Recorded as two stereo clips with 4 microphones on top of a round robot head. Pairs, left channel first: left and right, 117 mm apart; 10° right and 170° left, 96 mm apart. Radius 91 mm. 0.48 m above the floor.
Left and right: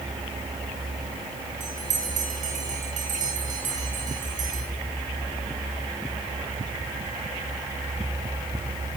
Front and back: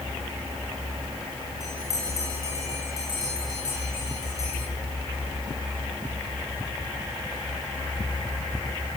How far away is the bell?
About 7.5 m.